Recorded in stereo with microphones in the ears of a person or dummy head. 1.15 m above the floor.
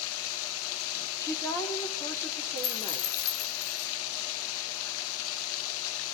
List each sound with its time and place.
0.0 s running water: 75° left (ahead or behind), 1.0 m
1.2 s a woman speaking: 15° left (ahead or behind), 4 m
2.6 s a dropped coin: 85° left, 5 m